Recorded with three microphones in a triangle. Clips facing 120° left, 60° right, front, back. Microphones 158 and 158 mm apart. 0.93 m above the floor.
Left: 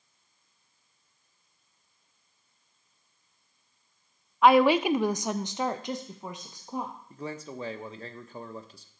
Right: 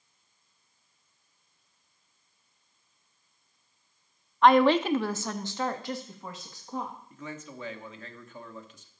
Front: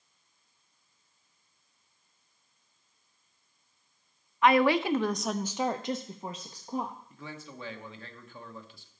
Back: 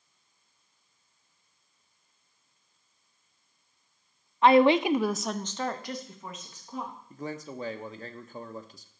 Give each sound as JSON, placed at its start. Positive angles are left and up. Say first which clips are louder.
{"t": 4.4, "sound": "a woman speaking", "louder": "even, back 4 dB", "azimuth_deg": -160, "distance_m": 0.6}
{"t": 7.1, "sound": "a man speaking", "louder": "left 4 dB, back 7 dB", "azimuth_deg": 160, "distance_m": 1.0}